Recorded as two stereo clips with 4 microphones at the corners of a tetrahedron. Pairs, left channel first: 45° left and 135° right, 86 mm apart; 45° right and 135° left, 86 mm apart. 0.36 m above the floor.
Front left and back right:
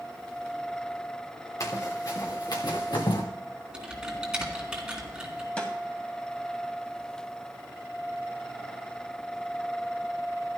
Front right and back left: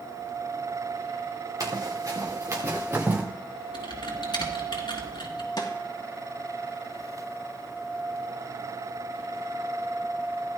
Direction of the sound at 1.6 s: 95° left.